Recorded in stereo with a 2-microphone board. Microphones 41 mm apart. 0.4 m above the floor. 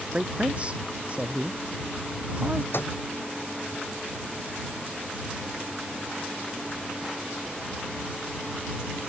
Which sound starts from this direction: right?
A man speaking, at 0.1 s.